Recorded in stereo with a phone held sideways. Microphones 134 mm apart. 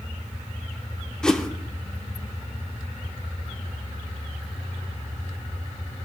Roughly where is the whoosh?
Centre.